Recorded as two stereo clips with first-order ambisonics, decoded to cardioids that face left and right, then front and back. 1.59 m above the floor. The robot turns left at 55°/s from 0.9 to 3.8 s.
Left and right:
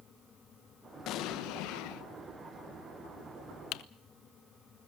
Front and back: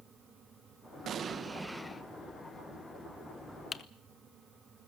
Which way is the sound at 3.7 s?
70° left.